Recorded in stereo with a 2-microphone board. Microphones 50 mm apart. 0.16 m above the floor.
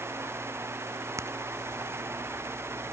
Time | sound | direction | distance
1.2 | a crack | 70° right (ahead or behind) | ?